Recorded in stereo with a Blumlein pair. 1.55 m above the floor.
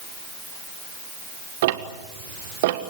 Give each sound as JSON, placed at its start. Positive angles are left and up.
{"t": 1.6, "sound": "ticking", "azimuth_deg": -55, "distance_m": 1.6}